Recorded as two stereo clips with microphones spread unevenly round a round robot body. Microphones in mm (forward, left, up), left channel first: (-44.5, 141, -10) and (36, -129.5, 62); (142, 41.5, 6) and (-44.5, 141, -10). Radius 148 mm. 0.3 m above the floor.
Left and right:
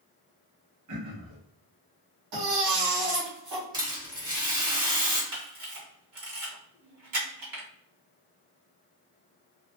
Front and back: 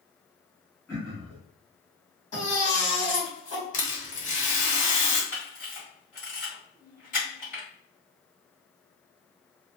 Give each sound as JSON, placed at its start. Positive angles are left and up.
{"t": 0.9, "sound": "throat clearing", "azimuth_deg": -110, "distance_m": 0.8}
{"t": 2.3, "sound": "a baby crying", "azimuth_deg": -75, "distance_m": 1.5}
{"t": 3.7, "sound": "a rattle", "azimuth_deg": 10, "distance_m": 1.7}
{"t": 5.3, "sound": "a camera shutter", "azimuth_deg": -80, "distance_m": 1.3}